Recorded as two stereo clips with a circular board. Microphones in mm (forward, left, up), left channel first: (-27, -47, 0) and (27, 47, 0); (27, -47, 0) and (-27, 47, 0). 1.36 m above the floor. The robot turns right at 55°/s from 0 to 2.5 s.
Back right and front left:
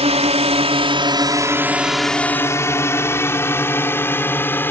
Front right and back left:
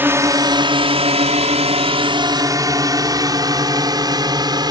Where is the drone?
50° left; by 4.7 s 170° left.